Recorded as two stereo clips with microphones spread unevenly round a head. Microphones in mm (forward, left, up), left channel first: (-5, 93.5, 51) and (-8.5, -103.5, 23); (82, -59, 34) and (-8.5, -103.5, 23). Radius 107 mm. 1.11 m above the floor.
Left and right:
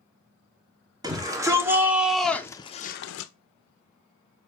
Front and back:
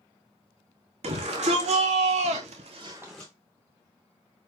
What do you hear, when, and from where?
1.0 s a shout: 165° right, 1.7 m; by 3.3 s 100° left, 0.5 m